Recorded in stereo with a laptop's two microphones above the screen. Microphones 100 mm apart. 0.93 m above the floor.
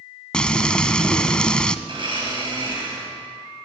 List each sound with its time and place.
0.3 s frying: 10° left (ahead or behind), 1.1 m
1.9 s a blender: 55° right (ahead or behind), 7.5 m